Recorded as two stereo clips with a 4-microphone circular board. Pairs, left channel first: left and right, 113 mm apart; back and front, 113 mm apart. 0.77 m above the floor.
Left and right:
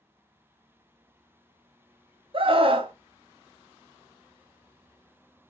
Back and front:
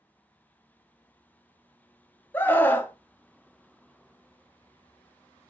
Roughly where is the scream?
Right.